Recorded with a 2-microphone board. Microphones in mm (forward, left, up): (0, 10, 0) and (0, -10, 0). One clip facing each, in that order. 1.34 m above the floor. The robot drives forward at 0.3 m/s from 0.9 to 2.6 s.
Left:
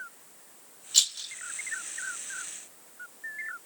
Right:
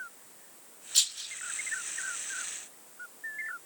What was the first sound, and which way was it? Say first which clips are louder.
A rattle: left 3 dB; 50° left (ahead or behind).